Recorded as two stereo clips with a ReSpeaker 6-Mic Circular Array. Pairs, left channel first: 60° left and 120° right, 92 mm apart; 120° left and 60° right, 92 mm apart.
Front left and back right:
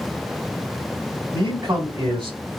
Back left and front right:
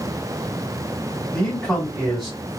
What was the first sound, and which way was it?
A man speaking, 160° right.